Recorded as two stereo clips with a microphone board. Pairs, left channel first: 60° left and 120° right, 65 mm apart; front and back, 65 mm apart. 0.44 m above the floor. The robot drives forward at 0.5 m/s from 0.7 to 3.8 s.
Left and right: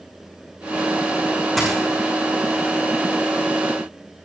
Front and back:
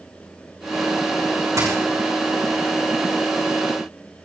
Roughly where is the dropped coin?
Behind left.